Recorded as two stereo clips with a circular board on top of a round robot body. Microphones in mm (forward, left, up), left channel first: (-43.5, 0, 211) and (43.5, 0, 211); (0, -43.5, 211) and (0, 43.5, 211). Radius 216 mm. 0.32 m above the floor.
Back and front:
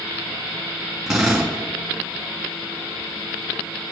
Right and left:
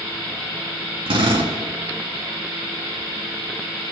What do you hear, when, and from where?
1.1 s a drill: 85° left, 3.5 m